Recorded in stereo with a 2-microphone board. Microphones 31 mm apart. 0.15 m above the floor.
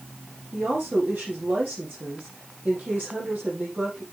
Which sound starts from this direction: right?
A woman speaking, at 0.5 s.